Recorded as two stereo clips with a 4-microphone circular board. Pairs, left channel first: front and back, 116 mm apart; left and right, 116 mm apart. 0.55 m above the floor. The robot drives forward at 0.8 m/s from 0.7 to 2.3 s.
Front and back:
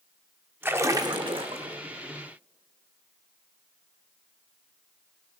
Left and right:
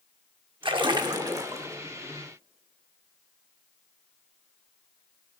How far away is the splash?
About 0.7 m.